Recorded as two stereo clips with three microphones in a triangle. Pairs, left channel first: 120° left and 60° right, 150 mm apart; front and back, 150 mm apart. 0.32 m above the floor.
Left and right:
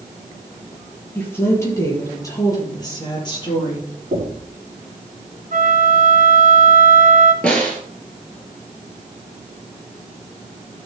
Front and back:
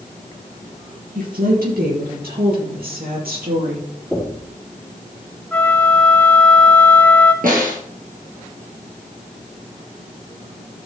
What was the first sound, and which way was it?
A woman speaking, 165° right.